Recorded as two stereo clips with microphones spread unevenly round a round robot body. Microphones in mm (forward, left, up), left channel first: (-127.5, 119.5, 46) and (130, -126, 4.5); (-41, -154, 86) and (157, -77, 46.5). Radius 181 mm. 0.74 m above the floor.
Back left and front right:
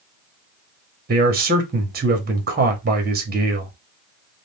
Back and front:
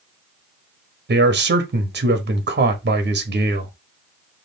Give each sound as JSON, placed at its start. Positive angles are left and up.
{"t": 1.1, "sound": "a man speaking", "azimuth_deg": 15, "distance_m": 1.1}